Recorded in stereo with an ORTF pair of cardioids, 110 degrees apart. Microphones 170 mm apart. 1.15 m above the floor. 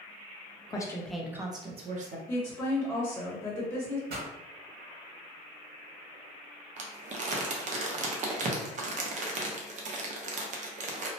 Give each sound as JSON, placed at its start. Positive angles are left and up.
{"t": 0.7, "sound": "a woman speaking", "azimuth_deg": 25, "distance_m": 0.7}
{"t": 2.3, "sound": "a woman speaking", "azimuth_deg": 10, "distance_m": 0.9}
{"t": 4.1, "sound": "a pop", "azimuth_deg": -70, "distance_m": 1.5}
{"t": 6.8, "sound": "crumpling", "azimuth_deg": -45, "distance_m": 0.7}